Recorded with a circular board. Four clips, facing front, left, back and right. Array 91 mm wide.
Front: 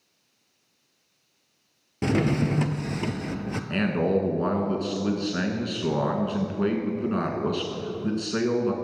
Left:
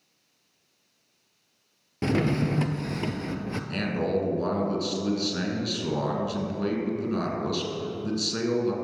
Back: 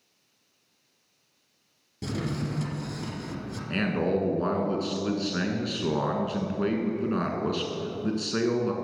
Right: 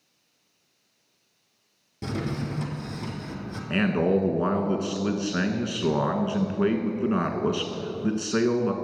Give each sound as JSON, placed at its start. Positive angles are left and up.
{"t": 2.0, "sound": "a drawer", "azimuth_deg": 40, "distance_m": 0.6}
{"t": 3.7, "sound": "a man speaking", "azimuth_deg": -85, "distance_m": 1.3}